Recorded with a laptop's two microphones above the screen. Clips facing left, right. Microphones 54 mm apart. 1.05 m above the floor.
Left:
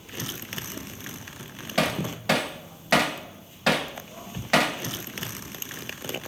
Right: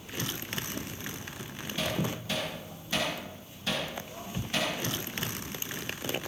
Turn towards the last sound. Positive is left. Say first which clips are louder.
# left 6 dB
turn(degrees=85)